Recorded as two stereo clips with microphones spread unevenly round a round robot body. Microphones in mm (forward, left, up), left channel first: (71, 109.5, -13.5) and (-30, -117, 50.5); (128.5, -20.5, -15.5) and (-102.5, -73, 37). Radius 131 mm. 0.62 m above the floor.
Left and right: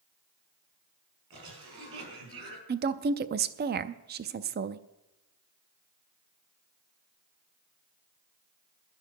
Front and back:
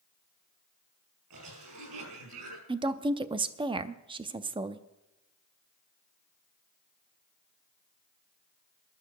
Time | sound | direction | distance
1.3 | a cough | 155° right | 6 m
2.7 | a woman speaking | 95° right | 0.5 m